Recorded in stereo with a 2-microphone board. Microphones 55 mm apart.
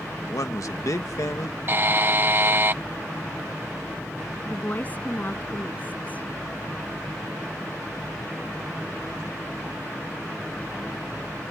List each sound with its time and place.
0.3 s a man speaking: 65° left (ahead or behind)
1.7 s a buzzer: 40° right (ahead or behind)
4.5 s a woman speaking: 30° left (ahead or behind)